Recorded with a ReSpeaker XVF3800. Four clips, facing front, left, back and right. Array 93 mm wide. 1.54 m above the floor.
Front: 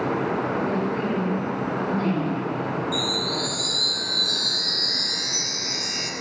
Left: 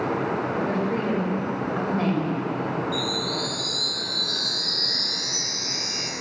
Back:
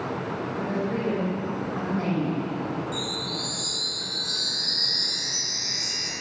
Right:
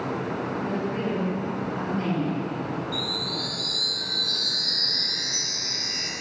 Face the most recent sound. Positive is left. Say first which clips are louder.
# left 4 dB, front 5 dB
turn(degrees=0)